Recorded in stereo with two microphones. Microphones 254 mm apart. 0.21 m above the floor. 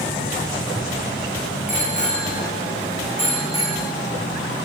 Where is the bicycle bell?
30° left (ahead or behind), 9.5 m; by 3.8 s 25° left (ahead or behind), 11.5 m.